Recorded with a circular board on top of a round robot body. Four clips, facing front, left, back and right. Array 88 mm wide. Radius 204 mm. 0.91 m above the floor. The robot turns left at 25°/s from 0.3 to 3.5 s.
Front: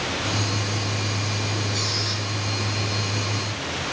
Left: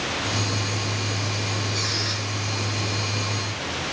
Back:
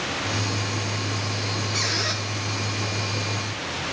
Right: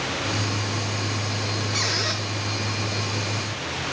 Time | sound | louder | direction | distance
1.7 | a squeak | right 2 dB, back 1 dB | 115° right | 0.6 m